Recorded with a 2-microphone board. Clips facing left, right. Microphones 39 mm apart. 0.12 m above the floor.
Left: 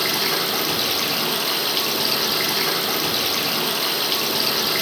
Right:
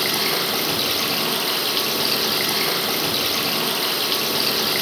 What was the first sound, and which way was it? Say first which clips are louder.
Running water: even; 5° right (ahead or behind).